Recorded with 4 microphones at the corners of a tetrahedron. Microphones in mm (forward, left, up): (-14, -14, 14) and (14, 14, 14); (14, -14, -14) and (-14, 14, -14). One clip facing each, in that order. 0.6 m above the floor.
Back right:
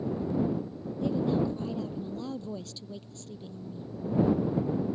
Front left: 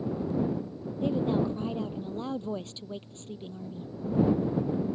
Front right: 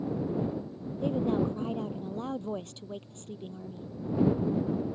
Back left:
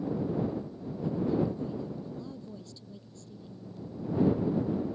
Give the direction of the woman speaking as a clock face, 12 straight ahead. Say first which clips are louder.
Front left 1 dB, front right 1 dB; 12 o'clock.